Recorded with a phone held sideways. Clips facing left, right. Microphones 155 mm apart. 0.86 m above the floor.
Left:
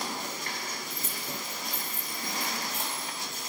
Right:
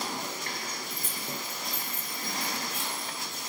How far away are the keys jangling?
About 1.2 m.